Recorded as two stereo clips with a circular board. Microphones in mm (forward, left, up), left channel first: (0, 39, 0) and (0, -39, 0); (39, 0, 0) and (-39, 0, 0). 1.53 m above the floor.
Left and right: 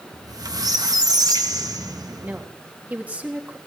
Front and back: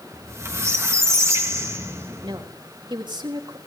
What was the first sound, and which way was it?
A squeak, 125° right.